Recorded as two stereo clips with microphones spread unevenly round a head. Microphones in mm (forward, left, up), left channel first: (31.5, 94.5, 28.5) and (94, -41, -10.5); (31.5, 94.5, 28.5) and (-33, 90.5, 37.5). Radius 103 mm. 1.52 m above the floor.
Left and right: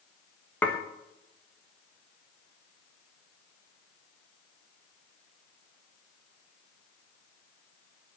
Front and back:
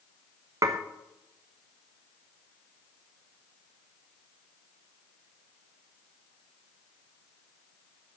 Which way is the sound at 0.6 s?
175° right.